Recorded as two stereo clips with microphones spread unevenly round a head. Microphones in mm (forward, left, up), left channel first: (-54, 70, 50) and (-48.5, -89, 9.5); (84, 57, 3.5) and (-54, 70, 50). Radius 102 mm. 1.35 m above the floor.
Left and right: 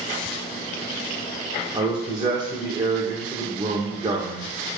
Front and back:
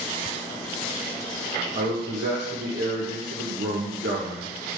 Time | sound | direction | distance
1.7 | a man speaking | 150° right | 1.5 m